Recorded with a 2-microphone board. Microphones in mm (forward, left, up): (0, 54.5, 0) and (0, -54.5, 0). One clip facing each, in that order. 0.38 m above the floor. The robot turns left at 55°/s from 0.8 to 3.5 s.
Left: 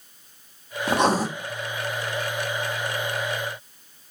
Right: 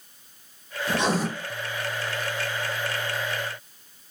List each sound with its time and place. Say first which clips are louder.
0.9 s writing: left 4 dB; 60° left (ahead or behind), 1.8 m; by 1.3 s 40° left (ahead or behind), 1.8 m